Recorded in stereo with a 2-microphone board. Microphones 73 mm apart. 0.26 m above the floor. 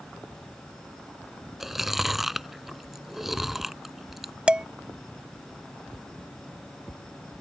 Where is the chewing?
5° right (ahead or behind).